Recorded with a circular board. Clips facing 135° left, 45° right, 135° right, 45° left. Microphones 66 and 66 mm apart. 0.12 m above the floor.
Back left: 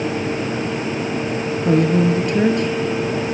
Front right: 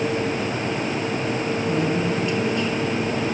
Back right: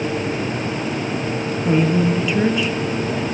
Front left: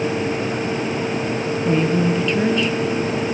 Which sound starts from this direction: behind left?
A woman speaking, at 1.6 s.